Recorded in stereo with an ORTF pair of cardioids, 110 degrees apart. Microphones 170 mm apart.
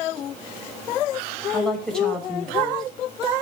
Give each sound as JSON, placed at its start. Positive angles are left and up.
{"t": 1.5, "sound": "a woman speaking", "azimuth_deg": 5, "distance_m": 5.5}